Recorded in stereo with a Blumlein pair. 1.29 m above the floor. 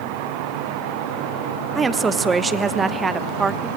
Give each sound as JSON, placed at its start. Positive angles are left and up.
{"t": 1.8, "sound": "a woman speaking", "azimuth_deg": -15, "distance_m": 1.1}